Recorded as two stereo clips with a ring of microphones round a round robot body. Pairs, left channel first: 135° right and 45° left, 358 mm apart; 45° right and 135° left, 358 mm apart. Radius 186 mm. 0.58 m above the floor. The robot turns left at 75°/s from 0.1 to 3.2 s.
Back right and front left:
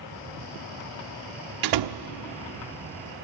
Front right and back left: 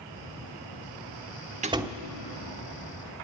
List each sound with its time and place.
1.6 s a door slam: 65° left, 1.0 m; by 2.0 s 35° left, 1.0 m